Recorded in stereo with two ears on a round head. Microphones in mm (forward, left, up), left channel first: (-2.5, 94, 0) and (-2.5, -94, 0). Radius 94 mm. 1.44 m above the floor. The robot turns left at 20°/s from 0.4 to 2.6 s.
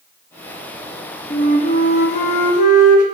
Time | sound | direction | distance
1.3 | a flute | 25° left (ahead or behind) | 1.0 m